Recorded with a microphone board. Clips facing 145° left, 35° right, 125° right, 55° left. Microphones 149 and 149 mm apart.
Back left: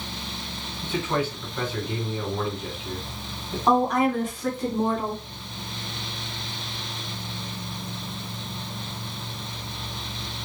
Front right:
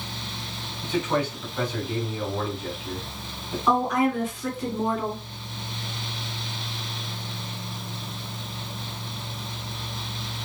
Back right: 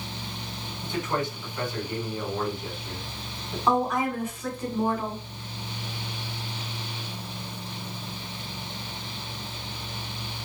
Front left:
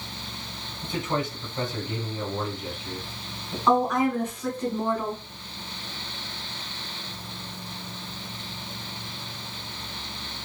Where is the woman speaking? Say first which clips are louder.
Back left 2 dB, front left 3 dB; 160° left, 1.5 m.